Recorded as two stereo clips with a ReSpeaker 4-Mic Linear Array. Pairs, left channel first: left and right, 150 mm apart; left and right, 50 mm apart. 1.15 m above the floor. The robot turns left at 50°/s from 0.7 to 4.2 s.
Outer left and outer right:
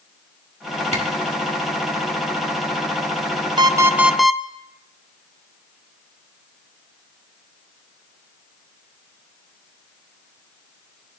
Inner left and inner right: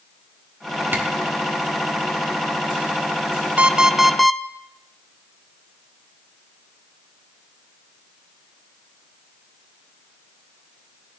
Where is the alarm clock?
150° right, 0.6 m; by 4.4 s straight behind, 0.6 m.